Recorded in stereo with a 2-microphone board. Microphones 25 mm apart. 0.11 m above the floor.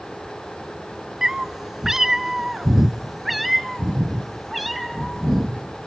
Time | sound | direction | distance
1.2 | a cat meowing | 20° right (ahead or behind) | 0.7 m